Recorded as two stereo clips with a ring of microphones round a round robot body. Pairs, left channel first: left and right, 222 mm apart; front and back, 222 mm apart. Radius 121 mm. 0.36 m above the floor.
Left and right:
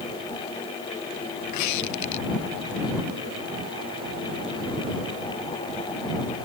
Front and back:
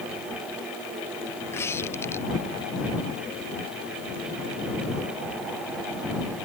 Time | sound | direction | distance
1.5 | a squeak | 80° left | ?